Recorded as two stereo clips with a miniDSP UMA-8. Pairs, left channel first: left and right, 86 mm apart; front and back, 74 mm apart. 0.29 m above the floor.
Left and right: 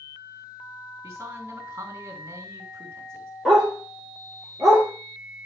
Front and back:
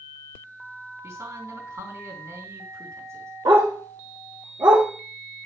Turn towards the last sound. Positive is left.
turn(degrees=180)